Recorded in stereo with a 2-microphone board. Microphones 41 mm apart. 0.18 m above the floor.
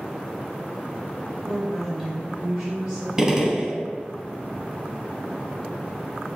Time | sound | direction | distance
1.4 | a woman speaking | centre (ahead or behind) | 1.1 m
3.2 | a gunshot | 15° right (ahead or behind) | 0.6 m